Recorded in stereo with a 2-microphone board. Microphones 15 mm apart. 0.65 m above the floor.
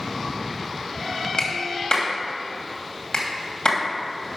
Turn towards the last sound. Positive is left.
turn(degrees=65)  # may be behind; listen again after turning